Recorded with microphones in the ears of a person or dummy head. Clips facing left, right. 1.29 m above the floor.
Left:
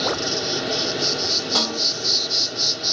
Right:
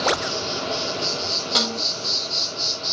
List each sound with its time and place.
0.0 s an insect: 30° left (ahead or behind), 1.5 m
1.6 s a snare drum: 30° right (ahead or behind), 4 m